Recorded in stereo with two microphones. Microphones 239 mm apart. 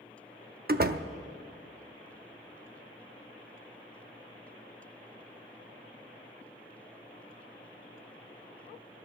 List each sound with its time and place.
0.7 s a door slam: 40° right (ahead or behind), 0.6 m